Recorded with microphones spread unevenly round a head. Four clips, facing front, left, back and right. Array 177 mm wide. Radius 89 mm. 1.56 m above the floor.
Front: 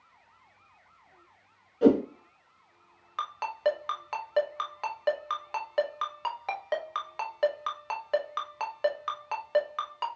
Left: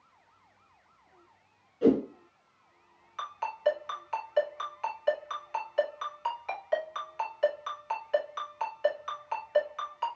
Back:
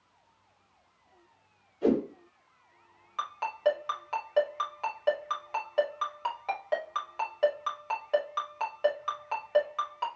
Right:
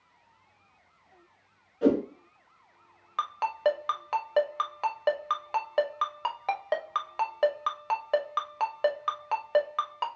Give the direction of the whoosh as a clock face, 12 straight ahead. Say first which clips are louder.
Even, front 5 dB; 12 o'clock.